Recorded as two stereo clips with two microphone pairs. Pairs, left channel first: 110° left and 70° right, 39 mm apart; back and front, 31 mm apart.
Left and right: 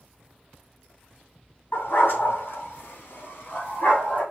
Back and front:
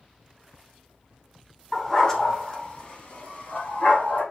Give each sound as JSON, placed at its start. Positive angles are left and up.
{"t": 1.7, "sound": "a dog barking", "azimuth_deg": 95, "distance_m": 2.5}